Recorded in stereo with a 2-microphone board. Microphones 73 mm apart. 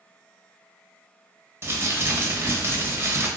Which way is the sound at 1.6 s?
35° right (ahead or behind).